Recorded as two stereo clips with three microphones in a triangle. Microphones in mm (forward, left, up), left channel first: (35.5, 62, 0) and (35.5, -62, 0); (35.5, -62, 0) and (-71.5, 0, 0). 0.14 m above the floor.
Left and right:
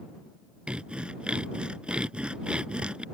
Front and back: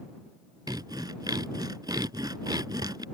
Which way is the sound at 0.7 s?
165° right.